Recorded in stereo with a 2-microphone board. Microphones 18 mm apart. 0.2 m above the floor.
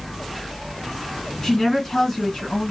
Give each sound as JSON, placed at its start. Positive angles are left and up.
{"t": 1.4, "sound": "a woman speaking", "side_deg": 35, "distance_m": 1.9}